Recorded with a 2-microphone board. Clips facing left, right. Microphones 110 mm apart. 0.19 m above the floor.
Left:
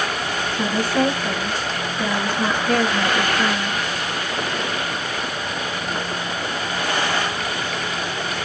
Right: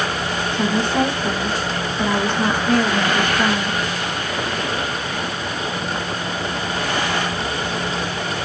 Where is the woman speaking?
25° right (ahead or behind), 1.7 m.